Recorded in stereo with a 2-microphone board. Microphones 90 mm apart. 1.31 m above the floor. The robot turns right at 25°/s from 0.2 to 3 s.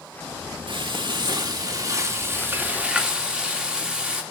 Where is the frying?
65° right, 2.5 m; by 4.2 s 10° right, 2.5 m.